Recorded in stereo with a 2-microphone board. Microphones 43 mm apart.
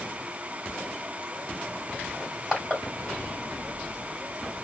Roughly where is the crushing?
Centre.